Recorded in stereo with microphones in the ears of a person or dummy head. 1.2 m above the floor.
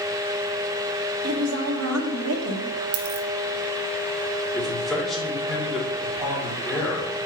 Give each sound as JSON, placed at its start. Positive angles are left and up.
{"t": 1.2, "sound": "a woman speaking", "side_deg": -80, "distance_m": 1.2}
{"t": 2.9, "sound": "a dropped coin", "side_deg": -50, "distance_m": 0.8}
{"t": 4.5, "sound": "a man speaking", "side_deg": 0, "distance_m": 2.5}